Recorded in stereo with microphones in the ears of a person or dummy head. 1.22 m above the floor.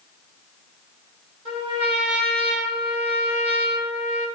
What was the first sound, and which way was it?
A trumpet, 30° right (ahead or behind).